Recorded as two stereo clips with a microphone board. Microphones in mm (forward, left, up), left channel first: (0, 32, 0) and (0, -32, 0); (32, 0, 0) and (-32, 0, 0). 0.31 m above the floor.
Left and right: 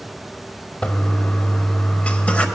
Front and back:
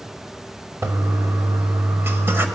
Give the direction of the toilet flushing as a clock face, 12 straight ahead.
7 o'clock.